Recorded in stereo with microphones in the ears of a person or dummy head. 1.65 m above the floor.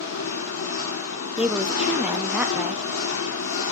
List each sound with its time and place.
0.0 s an engine running: 70° left (ahead or behind), 3 m
1.4 s a woman speaking: 5° right (ahead or behind), 0.5 m